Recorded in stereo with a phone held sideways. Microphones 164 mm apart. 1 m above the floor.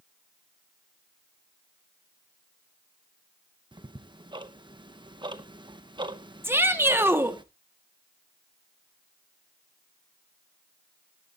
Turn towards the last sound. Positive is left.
turn(degrees=-15)  # may be behind; listen again after turning